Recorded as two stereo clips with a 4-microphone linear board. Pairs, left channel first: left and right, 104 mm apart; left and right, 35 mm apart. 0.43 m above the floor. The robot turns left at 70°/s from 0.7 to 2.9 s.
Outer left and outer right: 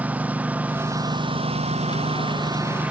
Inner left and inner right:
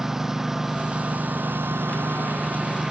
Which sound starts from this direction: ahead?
A lawn mower, at 0.0 s.